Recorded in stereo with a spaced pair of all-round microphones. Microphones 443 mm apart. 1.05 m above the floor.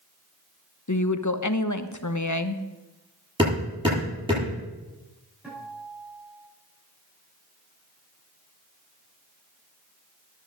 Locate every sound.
0.9 s a woman speaking: 45° left (ahead or behind), 1.1 m
3.4 s hammering: 10° right (ahead or behind), 9 m
5.4 s a guitar: 5° right (ahead or behind), 9 m